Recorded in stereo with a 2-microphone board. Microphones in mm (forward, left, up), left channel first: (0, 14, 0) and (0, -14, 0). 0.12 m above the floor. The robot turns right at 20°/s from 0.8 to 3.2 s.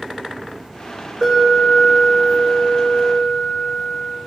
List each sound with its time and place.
1.2 s an alarm: 5° right, 1.9 m; by 4.1 s 35° left, 1.9 m